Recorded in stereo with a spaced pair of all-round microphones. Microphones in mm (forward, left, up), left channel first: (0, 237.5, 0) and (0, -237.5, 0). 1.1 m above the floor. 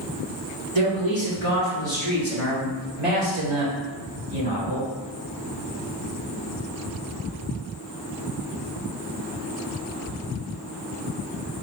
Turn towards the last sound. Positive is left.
turn(degrees=-40)  # may be behind; listen again after turning